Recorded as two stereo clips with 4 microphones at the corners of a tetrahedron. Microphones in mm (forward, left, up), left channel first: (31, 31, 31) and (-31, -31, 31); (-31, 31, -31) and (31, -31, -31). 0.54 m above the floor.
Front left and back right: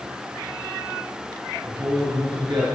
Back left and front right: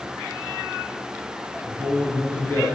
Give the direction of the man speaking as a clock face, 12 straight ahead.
5 o'clock.